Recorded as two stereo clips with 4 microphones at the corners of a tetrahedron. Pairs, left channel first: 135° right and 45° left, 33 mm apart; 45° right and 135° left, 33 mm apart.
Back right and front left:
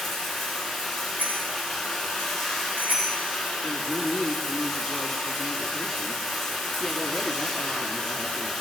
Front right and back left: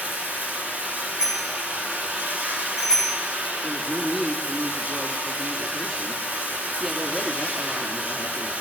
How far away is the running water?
About 9 m.